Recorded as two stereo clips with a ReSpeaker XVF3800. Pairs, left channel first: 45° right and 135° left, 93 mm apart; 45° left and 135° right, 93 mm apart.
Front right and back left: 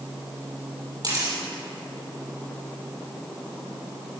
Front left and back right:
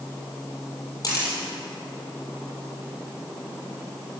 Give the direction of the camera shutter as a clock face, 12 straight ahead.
9 o'clock.